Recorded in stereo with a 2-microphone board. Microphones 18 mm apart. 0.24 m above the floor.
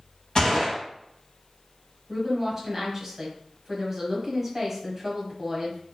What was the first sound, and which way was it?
A gunshot, 40° left (ahead or behind).